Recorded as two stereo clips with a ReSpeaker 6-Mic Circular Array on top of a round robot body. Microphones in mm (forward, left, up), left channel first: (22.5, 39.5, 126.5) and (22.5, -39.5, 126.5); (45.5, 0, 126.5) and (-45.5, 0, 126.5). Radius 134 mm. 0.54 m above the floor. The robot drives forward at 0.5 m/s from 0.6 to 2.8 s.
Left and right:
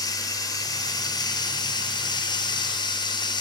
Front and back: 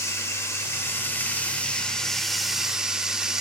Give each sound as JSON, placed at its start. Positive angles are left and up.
{"t": 0.0, "sound": "running water", "azimuth_deg": 60, "distance_m": 1.8}